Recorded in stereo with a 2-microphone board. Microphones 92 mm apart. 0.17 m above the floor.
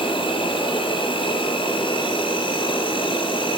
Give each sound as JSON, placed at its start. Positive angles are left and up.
{"t": 0.0, "sound": "an insect", "side_deg": 70, "distance_m": 1.3}